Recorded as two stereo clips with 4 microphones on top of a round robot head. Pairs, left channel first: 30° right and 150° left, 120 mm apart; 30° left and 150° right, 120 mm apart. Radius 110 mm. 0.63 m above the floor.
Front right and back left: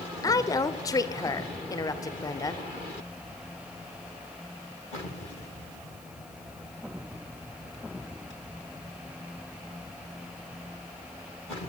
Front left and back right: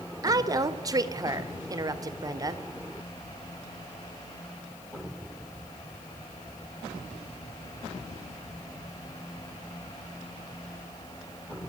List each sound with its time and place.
0.2 s a woman speaking: 90° right, 2 m